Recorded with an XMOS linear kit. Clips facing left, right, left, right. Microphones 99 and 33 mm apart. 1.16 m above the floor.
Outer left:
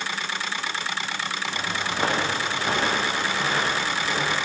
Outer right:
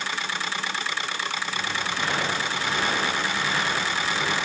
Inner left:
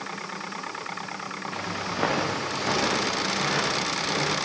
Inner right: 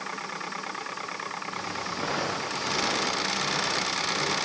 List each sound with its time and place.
1.5 s footsteps: 35° left (ahead or behind), 7.5 m; by 4.3 s 40° left (ahead or behind), 9.5 m